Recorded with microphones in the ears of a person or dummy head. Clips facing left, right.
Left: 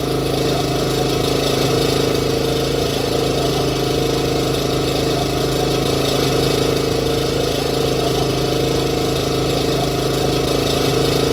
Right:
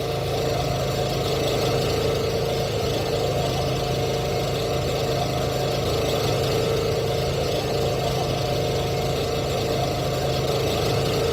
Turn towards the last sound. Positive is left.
turn(degrees=75)  # may be behind; listen again after turning